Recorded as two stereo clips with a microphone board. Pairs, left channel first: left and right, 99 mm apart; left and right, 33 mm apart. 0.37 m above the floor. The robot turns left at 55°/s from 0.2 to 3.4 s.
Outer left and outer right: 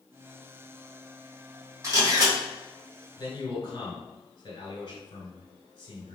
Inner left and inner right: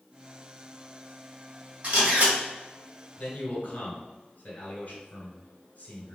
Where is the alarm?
No alarm in this recording.